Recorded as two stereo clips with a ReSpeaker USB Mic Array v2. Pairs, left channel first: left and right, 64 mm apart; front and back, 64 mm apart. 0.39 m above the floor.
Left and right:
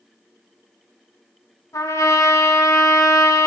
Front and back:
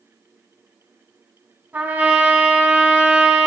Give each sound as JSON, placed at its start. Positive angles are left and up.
{"t": 1.7, "sound": "a trumpet", "azimuth_deg": 115, "distance_m": 1.0}